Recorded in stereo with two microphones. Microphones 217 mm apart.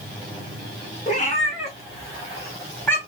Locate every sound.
1.1 s a cat meowing: 35° left (ahead or behind), 2.5 m; by 3.0 s 5° left (ahead or behind), 1.7 m